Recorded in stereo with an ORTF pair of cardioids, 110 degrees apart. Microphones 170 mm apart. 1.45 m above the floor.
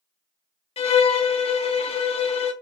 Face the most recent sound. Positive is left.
turn(degrees=35)